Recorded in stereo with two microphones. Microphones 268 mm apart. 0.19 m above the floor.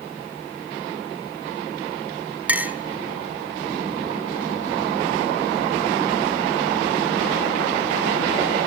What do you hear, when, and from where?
2.5 s a clink: 5° right (ahead or behind), 1.3 m